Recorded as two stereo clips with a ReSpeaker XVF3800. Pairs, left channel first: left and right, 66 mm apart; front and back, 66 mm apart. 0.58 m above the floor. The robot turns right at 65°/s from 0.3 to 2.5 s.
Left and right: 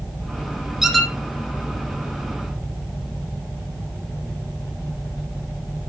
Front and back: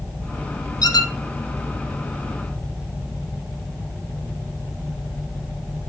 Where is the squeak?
5° right, 1.6 m; by 1.1 s 15° left, 1.6 m.